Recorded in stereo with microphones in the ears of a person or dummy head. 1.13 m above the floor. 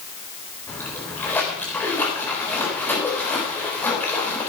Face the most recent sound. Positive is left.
turn(degrees=20)  # may be behind; listen again after turning